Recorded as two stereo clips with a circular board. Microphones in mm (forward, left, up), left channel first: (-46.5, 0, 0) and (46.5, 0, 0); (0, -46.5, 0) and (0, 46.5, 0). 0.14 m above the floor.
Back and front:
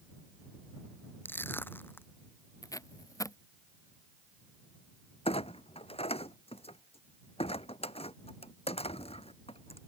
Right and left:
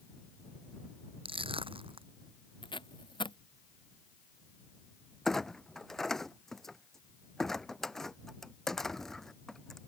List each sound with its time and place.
1.2 s crushing: 110° left
2.6 s tape being pulled: 125° right
5.2 s a clunk: 175° right